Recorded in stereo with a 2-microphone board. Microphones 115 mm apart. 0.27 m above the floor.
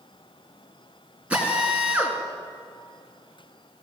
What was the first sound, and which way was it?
A drill, 10° right (ahead or behind).